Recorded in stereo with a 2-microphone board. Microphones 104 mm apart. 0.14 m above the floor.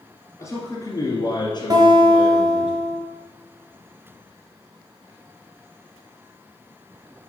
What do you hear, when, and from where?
0.4 s a man speaking: 25° left (ahead or behind), 1.6 m; by 2.7 s 50° left (ahead or behind), 2.0 m
1.7 s a guitar: 35° right (ahead or behind), 2.0 m